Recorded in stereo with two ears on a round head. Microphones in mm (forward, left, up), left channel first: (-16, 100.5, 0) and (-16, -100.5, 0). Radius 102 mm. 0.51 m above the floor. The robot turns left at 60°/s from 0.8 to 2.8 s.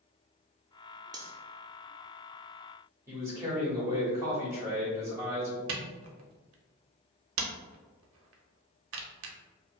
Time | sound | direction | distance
1.1 | cutlery clinking | 20° right (ahead or behind) | 0.6 m
3.1 | a man speaking | 15° right (ahead or behind) | 1.3 m
5.7 | a camera shutter | 60° right (ahead or behind) | 0.6 m